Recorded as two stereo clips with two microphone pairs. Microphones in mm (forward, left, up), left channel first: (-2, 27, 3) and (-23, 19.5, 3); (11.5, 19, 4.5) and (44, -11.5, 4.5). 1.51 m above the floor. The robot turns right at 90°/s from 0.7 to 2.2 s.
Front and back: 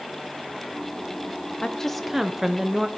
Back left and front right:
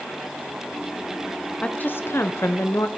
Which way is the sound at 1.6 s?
75° left.